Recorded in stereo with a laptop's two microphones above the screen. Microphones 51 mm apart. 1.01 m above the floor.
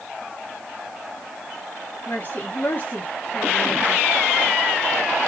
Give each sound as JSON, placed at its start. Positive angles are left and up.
{"t": 2.1, "sound": "a woman speaking", "side_deg": 35, "distance_m": 1.2}